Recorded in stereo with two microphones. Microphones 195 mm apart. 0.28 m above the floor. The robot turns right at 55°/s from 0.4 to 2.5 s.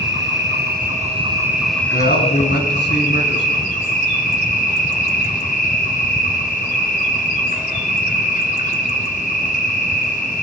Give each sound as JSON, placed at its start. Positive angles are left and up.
{"t": 0.0, "sound": "an insect", "azimuth_deg": -70, "distance_m": 2.5}
{"t": 1.9, "sound": "a man speaking", "azimuth_deg": 55, "distance_m": 2.0}